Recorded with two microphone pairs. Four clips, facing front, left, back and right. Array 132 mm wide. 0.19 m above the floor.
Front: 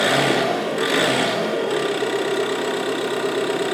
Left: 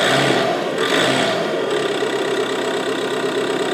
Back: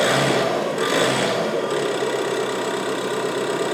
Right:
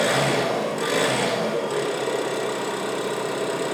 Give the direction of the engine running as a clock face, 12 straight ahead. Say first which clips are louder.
Left 5 dB, even; 9 o'clock.